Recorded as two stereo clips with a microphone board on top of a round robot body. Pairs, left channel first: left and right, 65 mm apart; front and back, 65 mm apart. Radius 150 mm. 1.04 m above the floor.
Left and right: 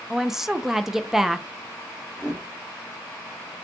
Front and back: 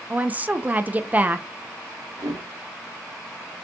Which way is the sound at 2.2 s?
150° left.